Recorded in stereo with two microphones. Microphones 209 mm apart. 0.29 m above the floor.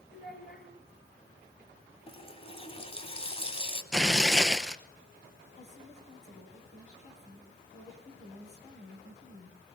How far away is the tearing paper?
About 0.9 m.